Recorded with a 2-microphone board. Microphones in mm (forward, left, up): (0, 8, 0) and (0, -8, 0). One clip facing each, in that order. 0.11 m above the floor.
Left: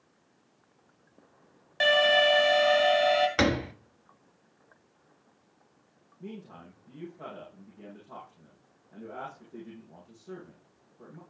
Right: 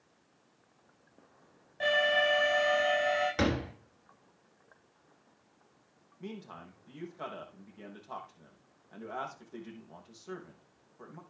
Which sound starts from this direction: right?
A man speaking, at 6.2 s.